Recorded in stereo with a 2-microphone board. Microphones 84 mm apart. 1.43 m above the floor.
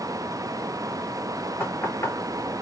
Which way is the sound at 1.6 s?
35° left (ahead or behind).